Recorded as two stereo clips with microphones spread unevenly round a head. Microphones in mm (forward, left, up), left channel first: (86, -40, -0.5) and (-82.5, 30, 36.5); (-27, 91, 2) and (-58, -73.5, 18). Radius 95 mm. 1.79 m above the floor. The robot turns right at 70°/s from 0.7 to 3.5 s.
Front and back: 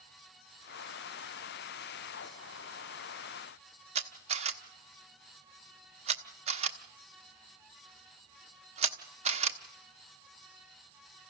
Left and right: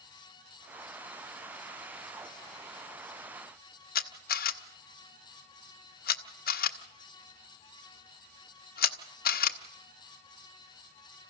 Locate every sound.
4.0 s a camera shutter: 110° left, 1.1 m